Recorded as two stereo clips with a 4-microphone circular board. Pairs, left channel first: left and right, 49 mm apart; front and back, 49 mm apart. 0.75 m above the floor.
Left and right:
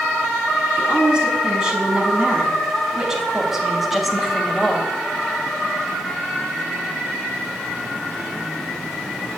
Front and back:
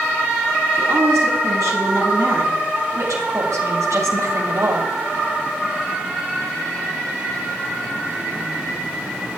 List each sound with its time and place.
0.8 s a woman speaking: 160° right, 6 m; by 4.9 s 170° left, 2.5 m